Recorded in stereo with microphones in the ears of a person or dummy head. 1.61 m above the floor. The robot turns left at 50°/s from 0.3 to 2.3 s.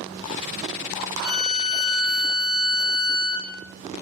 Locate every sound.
1.2 s a violin: 35° right, 1.9 m; by 3.5 s 85° right, 1.9 m